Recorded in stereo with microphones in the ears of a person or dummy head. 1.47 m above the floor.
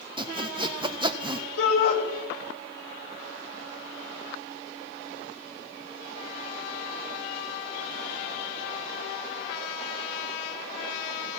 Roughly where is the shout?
Left.